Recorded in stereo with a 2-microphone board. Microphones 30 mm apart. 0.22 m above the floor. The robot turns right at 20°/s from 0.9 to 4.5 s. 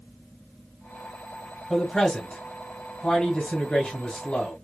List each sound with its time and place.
1.7 s a man speaking: 15° left, 1.2 m; by 4.5 s 70° left, 1.2 m